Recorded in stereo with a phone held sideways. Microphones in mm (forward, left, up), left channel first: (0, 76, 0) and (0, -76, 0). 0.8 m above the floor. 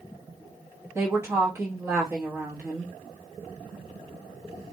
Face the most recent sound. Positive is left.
turn(degrees=-20)  # may be behind; listen again after turning